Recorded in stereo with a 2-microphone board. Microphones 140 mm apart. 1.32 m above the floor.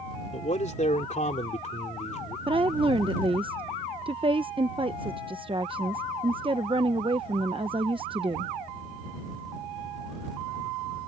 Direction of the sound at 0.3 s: 60° left (ahead or behind).